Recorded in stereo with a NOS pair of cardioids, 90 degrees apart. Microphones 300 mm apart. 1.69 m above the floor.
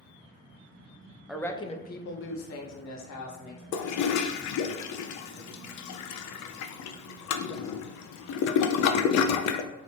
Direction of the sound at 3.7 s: 65° left.